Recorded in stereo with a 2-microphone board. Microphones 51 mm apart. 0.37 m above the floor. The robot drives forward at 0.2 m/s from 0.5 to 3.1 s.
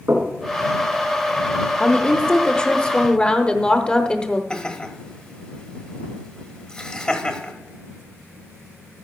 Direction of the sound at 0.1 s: 60° right (ahead or behind).